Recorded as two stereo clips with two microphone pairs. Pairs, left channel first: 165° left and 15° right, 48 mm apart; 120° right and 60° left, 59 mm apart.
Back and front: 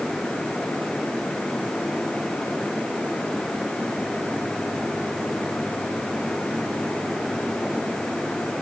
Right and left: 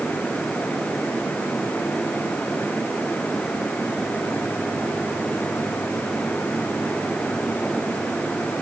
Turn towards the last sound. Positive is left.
No sound to turn to.